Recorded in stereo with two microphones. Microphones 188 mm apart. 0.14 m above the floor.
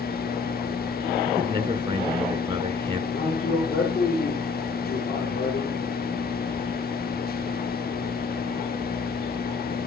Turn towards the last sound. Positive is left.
turn(degrees=75)  # may be behind; listen again after turning